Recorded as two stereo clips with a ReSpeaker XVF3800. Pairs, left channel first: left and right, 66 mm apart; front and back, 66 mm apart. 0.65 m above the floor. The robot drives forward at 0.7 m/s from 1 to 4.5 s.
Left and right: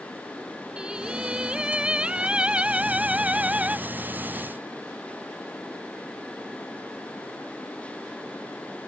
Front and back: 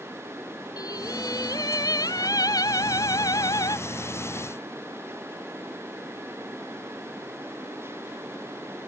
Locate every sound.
0.8 s singing: 15° right